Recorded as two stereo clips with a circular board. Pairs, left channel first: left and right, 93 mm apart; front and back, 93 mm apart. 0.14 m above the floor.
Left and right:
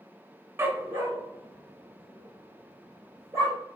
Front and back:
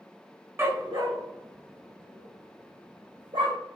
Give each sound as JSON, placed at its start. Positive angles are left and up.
{"t": 0.6, "sound": "a dog barking", "azimuth_deg": -135, "distance_m": 0.5}